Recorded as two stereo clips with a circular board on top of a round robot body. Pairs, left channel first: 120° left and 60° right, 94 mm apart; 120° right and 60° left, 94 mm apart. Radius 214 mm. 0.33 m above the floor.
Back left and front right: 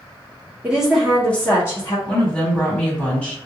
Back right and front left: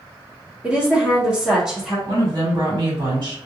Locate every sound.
0.6 s a woman speaking: straight ahead, 1.5 m; by 2.0 s 140° left, 1.6 m
2.1 s a woman speaking: 45° left, 1.9 m